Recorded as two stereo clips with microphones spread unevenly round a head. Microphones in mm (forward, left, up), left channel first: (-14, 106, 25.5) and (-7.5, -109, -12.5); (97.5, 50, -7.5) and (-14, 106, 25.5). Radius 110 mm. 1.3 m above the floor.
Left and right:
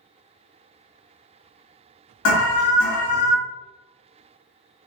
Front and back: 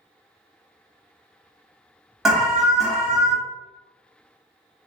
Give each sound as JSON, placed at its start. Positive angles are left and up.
{"t": 2.2, "sound": "an alarm", "azimuth_deg": 70, "distance_m": 1.2}